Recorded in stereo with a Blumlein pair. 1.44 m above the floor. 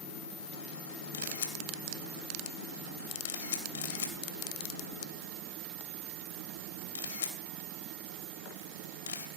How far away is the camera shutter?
About 3 m.